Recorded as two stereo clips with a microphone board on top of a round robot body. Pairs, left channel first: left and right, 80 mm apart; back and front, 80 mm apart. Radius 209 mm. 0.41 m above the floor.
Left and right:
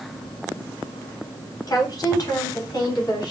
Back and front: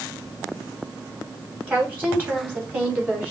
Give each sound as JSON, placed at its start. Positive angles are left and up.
{"t": 1.7, "sound": "a woman speaking", "azimuth_deg": 65, "distance_m": 2.0}